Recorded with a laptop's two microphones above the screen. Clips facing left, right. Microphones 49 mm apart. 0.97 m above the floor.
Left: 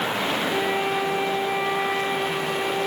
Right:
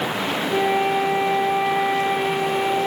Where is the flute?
15° right (ahead or behind), 5 m.